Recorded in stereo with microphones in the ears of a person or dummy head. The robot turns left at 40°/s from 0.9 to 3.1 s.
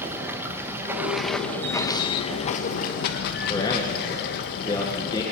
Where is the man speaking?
30° left (ahead or behind), 1.9 m.